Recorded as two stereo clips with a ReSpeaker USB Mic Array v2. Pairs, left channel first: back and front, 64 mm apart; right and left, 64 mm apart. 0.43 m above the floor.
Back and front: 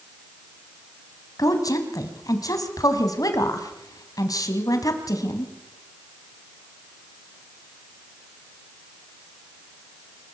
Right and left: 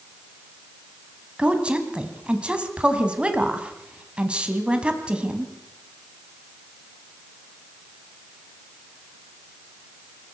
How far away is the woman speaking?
About 2.5 m.